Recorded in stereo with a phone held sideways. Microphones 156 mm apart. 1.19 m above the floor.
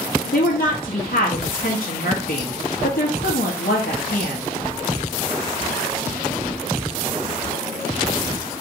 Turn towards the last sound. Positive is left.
turn(degrees=85)